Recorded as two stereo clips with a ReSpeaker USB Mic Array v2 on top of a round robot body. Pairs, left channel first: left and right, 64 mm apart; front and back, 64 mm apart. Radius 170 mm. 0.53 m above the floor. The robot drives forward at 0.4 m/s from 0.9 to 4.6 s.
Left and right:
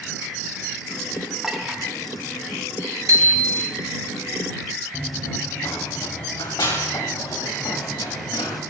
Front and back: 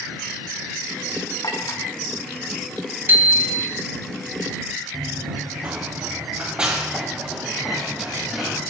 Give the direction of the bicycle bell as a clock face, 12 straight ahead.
4 o'clock.